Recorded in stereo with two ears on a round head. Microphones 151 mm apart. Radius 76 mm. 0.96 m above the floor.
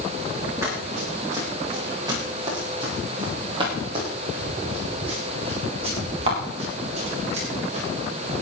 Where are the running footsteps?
20° right (ahead or behind), 9.5 m; by 7.9 s 40° right (ahead or behind), 12.5 m.